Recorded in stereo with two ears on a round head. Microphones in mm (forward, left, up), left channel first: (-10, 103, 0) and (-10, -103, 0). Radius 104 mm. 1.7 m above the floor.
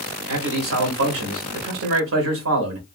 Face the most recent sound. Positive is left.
turn(degrees=-65)  # may be behind; listen again after turning